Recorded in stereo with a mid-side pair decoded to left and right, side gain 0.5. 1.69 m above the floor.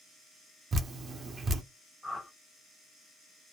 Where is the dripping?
40° right, 0.9 m.